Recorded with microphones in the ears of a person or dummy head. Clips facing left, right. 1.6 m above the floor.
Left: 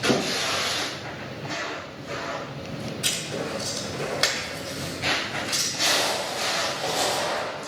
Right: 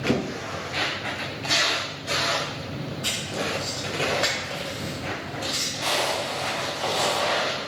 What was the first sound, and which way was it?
Writing, 40° left (ahead or behind).